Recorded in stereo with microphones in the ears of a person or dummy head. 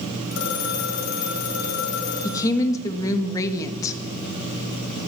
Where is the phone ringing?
75° left (ahead or behind), 4.5 m.